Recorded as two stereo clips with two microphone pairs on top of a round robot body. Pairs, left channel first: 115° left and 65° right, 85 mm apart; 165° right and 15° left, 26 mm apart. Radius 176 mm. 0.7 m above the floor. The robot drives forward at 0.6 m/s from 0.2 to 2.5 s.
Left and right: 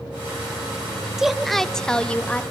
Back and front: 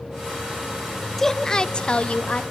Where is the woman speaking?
145° right, 0.7 m; by 2.4 s 170° right, 1.2 m.